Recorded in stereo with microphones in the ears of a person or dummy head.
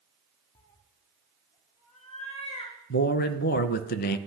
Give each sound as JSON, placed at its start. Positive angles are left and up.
{"t": 0.6, "sound": "a cat meowing", "side_deg": 20, "distance_m": 0.8}
{"t": 2.9, "sound": "a man speaking", "side_deg": 55, "distance_m": 0.6}